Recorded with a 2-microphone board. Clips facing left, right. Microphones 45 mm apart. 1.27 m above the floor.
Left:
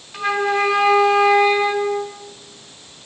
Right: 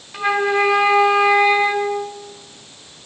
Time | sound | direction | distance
0.1 | a flute | 15° right (ahead or behind) | 5 m